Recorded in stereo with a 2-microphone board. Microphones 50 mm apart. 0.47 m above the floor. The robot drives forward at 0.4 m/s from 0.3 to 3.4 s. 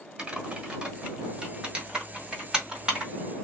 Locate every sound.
0.2 s typing on a keyboard: 20° right (ahead or behind), 1.5 m; by 3.1 s 10° right (ahead or behind), 2.5 m